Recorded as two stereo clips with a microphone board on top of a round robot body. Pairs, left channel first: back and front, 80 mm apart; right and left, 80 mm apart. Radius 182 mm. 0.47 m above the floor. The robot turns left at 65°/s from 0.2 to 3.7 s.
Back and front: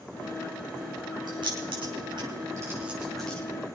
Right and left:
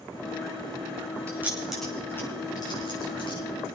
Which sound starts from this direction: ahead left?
Keys jangling, at 1.3 s.